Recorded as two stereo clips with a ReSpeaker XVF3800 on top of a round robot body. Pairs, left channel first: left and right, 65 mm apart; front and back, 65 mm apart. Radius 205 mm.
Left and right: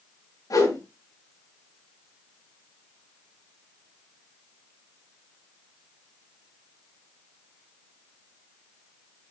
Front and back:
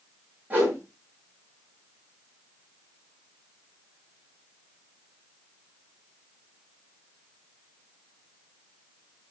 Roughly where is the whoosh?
Behind left.